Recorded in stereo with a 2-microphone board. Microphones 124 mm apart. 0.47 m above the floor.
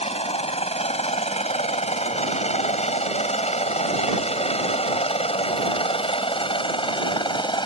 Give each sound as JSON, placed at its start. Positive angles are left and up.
{"t": 0.0, "sound": "a helicopter", "side_deg": 55}